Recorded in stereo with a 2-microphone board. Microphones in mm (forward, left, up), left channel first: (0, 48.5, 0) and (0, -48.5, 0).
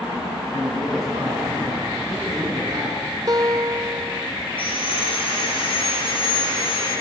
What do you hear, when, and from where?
0.5 s a man speaking: 40° right (ahead or behind), 7 m
3.3 s a guitar: 40° right (ahead or behind), 0.5 m
4.6 s sawing: 60° left (ahead or behind), 9 m